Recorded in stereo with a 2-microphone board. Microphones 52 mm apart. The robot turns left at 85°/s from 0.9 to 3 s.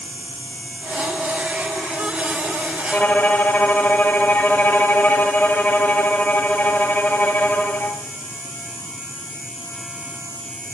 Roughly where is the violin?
Left.